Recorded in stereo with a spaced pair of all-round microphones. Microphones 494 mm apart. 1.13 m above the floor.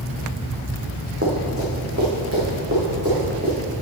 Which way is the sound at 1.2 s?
30° right (ahead or behind).